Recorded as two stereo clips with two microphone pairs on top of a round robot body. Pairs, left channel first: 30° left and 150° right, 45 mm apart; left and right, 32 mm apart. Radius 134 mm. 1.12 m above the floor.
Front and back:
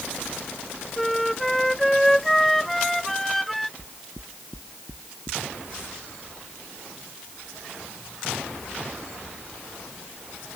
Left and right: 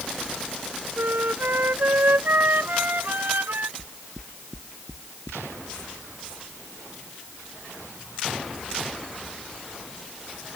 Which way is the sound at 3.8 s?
145° right.